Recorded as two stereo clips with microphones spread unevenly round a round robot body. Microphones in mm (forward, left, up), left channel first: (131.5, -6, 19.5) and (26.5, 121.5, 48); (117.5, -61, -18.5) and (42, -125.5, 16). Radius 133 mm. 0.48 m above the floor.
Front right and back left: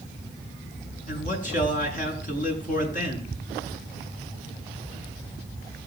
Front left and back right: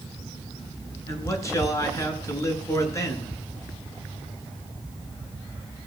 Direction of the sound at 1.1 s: 15° right.